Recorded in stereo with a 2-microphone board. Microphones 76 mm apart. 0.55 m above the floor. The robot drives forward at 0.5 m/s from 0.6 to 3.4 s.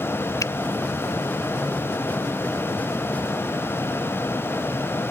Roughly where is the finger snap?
Left.